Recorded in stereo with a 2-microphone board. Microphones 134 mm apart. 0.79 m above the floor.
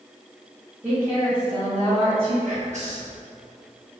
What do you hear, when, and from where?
0.8 s a woman speaking: 15° right (ahead or behind), 1.3 m; by 2.4 s 40° right (ahead or behind), 2.5 m
2.5 s whispering: 60° right (ahead or behind), 0.8 m